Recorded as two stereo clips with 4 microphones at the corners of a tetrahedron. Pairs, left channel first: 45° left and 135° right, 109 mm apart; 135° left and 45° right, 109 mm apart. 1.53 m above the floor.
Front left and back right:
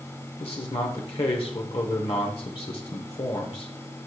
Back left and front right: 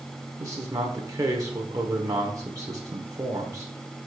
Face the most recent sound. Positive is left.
turn(degrees=10)